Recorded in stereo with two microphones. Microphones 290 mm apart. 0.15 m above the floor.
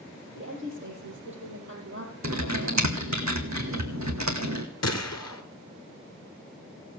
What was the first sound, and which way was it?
A woman speaking, 45° right (ahead or behind).